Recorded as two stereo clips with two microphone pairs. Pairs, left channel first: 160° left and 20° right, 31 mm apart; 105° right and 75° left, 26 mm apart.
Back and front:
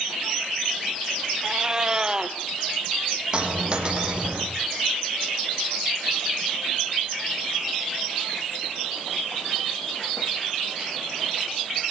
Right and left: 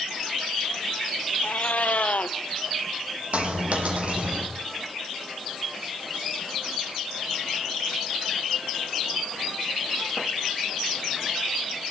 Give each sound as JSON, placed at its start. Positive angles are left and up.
{"t": 1.4, "sound": "a cat meowing", "azimuth_deg": -85, "distance_m": 1.8}
{"t": 3.3, "sound": "a dropped coin", "azimuth_deg": 40, "distance_m": 4.5}